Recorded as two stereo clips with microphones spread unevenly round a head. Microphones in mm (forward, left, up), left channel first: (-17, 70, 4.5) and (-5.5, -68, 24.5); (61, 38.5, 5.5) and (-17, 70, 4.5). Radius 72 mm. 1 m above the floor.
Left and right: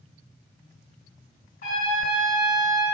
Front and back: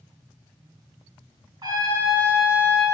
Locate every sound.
1.6 s a trumpet: 125° left, 2.5 m